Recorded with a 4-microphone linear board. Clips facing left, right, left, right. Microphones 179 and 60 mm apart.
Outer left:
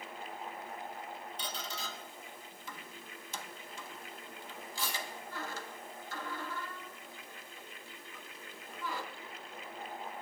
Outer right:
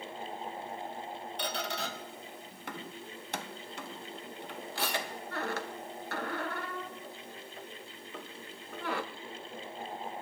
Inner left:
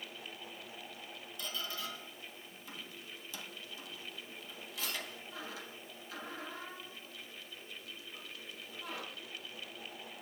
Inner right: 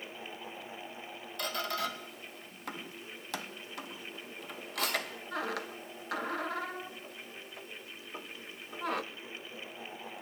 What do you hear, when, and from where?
1.4 s a squeak: 70° right (ahead or behind), 0.6 m